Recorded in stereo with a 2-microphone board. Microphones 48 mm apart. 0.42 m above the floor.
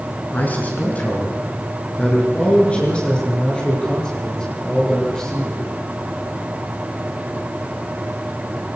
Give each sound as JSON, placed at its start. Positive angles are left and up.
{"t": 0.3, "sound": "a man speaking", "side_deg": 40, "distance_m": 5.0}